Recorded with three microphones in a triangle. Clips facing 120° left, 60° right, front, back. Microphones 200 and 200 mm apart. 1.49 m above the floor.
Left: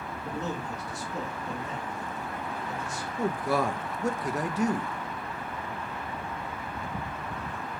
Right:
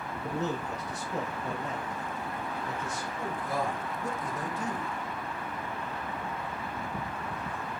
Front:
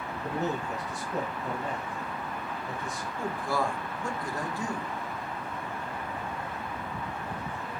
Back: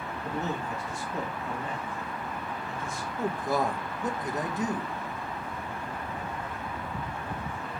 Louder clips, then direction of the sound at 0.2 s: Right 2 dB, front 2 dB; 55° right.